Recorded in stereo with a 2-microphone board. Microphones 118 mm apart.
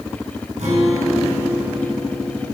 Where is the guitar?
75° right (ahead or behind), 3.5 m.